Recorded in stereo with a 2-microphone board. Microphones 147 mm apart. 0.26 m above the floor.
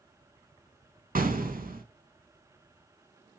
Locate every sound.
1.1 s an explosion: 75° right (ahead or behind), 0.6 m